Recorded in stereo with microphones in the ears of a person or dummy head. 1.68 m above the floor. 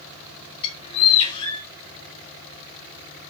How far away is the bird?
About 3 m.